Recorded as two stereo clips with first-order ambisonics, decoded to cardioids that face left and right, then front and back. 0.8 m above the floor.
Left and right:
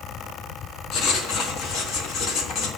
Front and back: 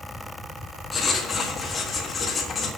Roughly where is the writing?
Ahead left.